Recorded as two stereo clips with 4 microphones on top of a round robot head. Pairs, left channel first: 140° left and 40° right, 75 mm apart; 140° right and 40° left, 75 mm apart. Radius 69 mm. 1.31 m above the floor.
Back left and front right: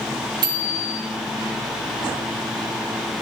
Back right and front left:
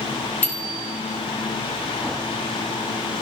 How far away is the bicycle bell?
About 4.5 m.